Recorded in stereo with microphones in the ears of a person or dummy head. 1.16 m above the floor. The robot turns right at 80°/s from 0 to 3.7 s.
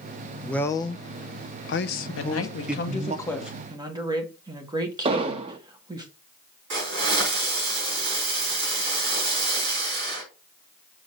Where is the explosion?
30° right (ahead or behind), 0.9 m.